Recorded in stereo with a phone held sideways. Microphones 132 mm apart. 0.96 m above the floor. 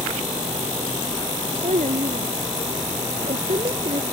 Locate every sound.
1.6 s a child speaking: 65° right (ahead or behind); by 4.0 s 50° right (ahead or behind)